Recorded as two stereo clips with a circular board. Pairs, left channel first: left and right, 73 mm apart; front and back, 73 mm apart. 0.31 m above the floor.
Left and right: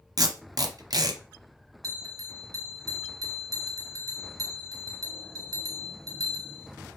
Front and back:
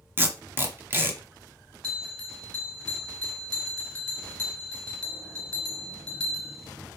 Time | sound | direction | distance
0.2 | tape being pulled | 120° right | 0.8 m
1.8 | a bell | 75° right | 1.2 m